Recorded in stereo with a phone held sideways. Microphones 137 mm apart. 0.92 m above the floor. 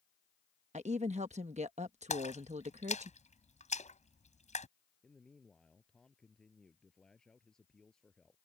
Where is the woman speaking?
55° right (ahead or behind).